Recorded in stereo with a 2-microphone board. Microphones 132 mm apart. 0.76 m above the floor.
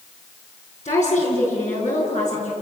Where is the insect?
I don't hear an insect.